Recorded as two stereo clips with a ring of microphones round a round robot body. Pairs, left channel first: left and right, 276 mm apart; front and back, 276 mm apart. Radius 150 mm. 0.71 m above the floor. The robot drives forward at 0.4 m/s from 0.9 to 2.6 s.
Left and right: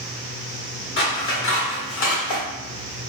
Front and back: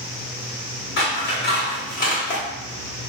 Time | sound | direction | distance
1.0 | scissors | 45° left | 1.7 m